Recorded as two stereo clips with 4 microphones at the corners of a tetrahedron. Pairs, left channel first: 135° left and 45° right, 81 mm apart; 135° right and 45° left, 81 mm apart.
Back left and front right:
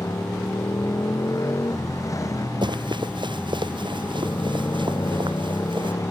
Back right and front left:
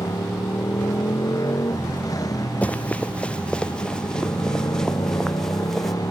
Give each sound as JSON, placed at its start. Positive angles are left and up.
{"t": 0.0, "sound": "a motorcycle", "azimuth_deg": -175}
{"t": 2.6, "sound": "running footsteps", "azimuth_deg": -60}